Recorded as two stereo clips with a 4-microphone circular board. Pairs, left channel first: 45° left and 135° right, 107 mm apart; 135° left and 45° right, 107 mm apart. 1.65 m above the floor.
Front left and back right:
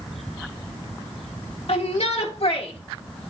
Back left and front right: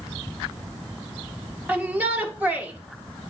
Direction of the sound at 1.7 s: 30° left.